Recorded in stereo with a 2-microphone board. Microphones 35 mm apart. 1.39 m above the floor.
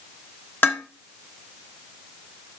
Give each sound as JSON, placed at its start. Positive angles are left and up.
{"t": 0.6, "sound": "dishes clattering", "side_deg": 70, "distance_m": 1.1}